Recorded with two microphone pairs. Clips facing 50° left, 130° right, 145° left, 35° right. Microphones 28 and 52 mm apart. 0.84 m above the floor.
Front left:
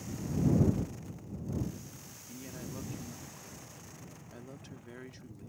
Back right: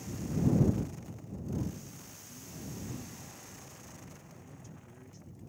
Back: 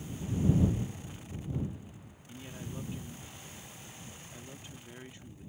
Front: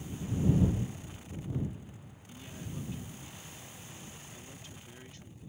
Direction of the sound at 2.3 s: 75° left.